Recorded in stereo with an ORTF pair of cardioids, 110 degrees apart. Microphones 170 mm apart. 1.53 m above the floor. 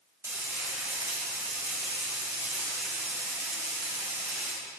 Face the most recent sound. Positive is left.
turn(degrees=-15)